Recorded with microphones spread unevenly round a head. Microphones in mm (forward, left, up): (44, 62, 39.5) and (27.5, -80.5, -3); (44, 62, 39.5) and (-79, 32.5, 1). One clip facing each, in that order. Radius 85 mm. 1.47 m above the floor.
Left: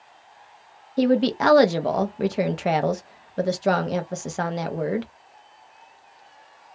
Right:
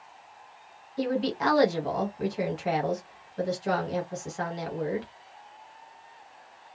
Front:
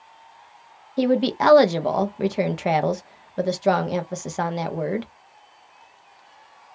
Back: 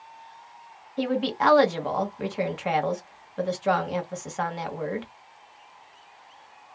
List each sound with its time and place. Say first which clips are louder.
1.0 s a woman speaking: left 8 dB, front 5 dB; 65° left, 0.5 m